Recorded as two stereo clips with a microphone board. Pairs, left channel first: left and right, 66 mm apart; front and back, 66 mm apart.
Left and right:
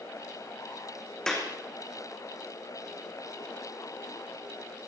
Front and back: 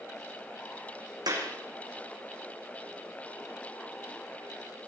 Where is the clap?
170° left, 5 m.